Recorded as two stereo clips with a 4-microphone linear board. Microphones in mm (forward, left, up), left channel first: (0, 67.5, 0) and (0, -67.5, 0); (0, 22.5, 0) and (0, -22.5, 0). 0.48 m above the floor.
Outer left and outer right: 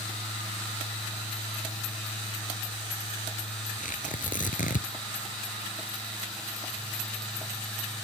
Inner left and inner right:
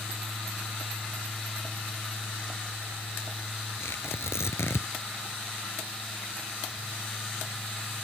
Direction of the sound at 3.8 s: 85° left.